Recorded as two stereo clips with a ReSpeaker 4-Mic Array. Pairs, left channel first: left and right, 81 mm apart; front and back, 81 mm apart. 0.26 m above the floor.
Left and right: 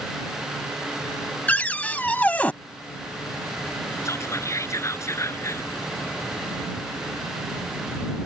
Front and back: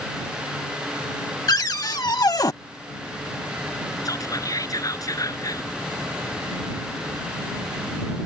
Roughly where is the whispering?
Ahead left.